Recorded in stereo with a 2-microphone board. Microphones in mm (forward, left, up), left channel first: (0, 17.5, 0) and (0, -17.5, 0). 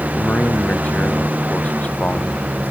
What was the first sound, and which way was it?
A man speaking, 40° left (ahead or behind).